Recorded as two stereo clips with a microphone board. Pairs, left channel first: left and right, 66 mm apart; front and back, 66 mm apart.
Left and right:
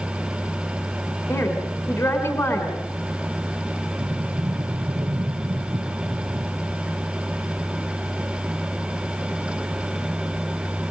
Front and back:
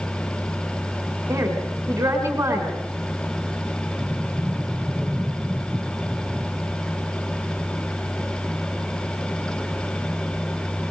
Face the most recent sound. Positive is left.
turn(degrees=-90)